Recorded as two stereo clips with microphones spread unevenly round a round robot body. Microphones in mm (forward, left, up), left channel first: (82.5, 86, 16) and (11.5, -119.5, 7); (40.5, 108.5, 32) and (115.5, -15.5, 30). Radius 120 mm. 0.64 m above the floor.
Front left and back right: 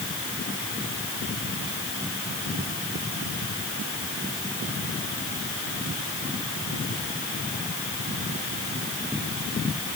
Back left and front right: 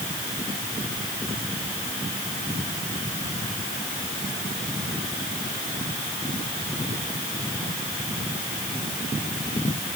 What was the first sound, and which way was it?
Only background noise.